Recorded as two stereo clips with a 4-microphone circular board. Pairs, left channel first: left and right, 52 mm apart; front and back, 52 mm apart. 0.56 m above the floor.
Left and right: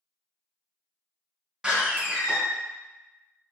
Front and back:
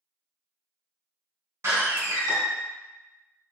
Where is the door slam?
165° right, 1.6 m.